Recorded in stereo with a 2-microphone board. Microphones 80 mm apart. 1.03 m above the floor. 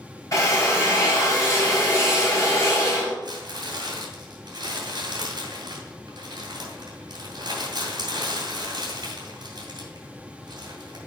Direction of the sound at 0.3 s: 45° left (ahead or behind).